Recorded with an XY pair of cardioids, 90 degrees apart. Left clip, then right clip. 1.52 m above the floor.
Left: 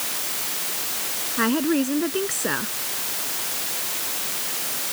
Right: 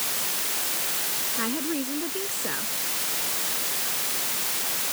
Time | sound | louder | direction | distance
1.4 | a woman speaking | left 11 dB | 55° left | ?